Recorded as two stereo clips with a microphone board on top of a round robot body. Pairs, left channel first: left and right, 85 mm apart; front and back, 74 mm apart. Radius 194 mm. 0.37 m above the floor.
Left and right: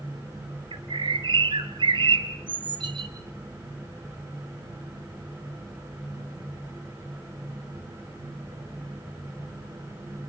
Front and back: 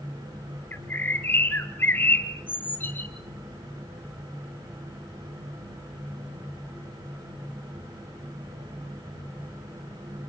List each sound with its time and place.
0.7 s a bird: 65° right, 1.8 m